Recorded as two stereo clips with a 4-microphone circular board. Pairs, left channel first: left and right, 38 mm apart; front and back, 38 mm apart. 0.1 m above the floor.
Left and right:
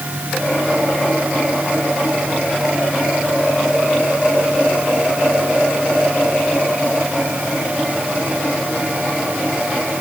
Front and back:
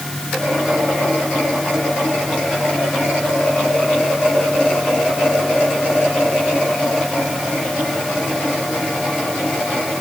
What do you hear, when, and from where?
Only background noise.